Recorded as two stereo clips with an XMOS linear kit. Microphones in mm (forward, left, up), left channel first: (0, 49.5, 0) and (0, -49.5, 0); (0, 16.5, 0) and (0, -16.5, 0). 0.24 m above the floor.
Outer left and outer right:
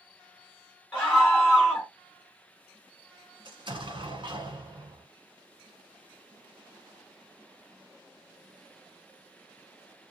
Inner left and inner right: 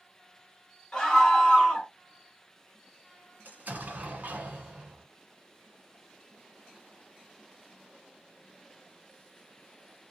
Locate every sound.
0.9 s a scream: 10° left (ahead or behind), 1.2 m
3.5 s an explosion: 55° right (ahead or behind), 1.6 m